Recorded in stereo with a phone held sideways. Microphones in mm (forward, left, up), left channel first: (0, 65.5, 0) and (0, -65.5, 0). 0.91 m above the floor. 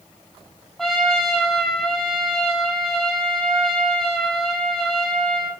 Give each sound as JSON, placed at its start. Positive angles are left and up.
{"t": 0.8, "sound": "a trumpet", "side_deg": 0, "distance_m": 6.0}